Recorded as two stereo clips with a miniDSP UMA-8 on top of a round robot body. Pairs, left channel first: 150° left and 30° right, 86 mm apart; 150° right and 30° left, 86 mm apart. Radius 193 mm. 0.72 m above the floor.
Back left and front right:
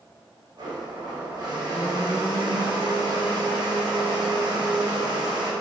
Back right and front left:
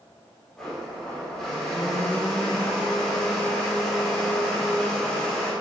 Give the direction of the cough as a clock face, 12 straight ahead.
No cough in this recording.